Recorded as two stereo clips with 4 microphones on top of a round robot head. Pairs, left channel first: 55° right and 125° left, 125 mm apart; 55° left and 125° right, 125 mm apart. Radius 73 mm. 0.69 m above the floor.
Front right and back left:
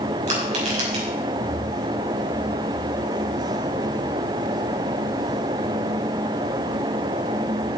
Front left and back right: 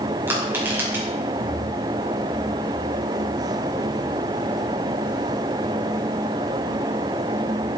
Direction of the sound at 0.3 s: 160° left.